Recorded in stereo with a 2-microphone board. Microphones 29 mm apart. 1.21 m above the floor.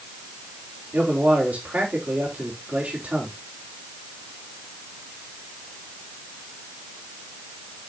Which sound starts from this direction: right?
A man speaking, at 0.9 s.